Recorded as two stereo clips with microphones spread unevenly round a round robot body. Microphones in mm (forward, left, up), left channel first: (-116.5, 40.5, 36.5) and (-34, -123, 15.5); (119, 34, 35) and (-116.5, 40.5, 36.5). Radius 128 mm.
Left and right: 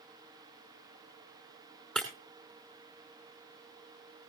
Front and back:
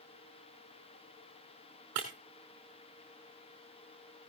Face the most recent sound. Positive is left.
turn(degrees=-155)